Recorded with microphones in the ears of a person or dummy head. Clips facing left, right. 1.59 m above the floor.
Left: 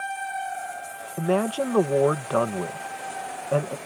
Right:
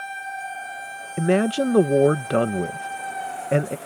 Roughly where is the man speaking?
Centre.